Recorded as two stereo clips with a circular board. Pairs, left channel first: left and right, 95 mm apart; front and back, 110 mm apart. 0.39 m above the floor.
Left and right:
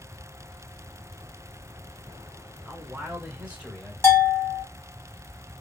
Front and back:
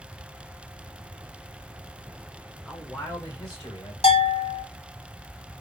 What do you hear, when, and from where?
2.6 s a man speaking: 100° right, 0.8 m; by 3.9 s 10° right, 1.4 m
4.0 s a bell: 25° left, 0.9 m